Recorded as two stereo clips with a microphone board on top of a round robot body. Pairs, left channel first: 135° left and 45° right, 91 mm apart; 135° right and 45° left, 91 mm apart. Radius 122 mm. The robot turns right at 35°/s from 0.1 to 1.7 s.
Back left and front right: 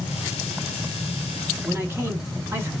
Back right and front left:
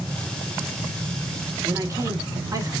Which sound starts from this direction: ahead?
A man speaking, at 1.6 s.